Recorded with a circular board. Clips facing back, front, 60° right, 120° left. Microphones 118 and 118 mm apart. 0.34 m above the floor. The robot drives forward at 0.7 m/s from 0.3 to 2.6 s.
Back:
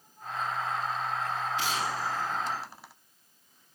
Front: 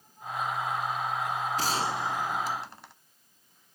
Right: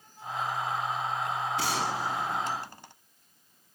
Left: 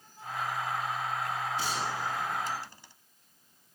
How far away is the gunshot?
About 1.1 m.